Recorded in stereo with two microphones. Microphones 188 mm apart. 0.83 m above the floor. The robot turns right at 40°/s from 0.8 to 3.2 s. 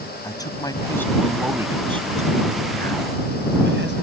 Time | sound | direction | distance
0.2 | a man speaking | 160° left | ?